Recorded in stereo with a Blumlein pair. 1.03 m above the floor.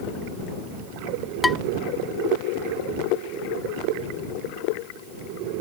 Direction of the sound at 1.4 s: 10° left.